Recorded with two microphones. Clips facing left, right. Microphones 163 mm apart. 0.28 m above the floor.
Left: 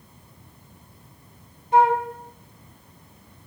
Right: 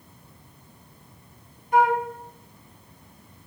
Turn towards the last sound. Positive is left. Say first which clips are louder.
# left 2 dB
turn(degrees=25)  # may be behind; listen again after turning